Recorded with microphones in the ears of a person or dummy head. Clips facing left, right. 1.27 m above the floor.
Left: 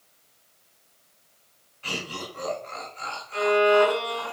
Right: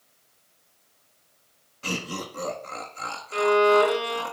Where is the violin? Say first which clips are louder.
Right 1 dB; 55° right (ahead or behind), 3 m.